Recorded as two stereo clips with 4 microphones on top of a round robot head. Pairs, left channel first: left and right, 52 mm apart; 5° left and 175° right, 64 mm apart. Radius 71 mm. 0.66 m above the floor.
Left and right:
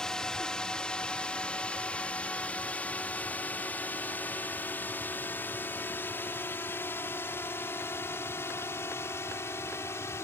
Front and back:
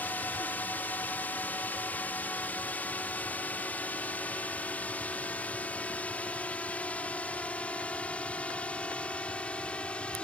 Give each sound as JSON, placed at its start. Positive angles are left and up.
{"t": 0.0, "sound": "a drone", "azimuth_deg": 30}